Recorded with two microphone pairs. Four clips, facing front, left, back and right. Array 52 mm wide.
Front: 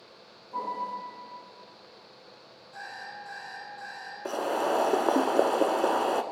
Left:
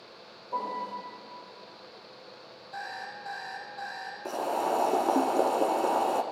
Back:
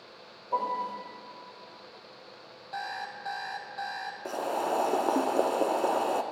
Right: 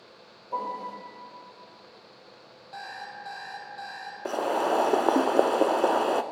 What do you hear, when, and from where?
0.5 s a piano: 165° right, 6.5 m
2.7 s an alarm clock: 165° right, 2.5 m
4.2 s boiling: 65° right, 0.7 m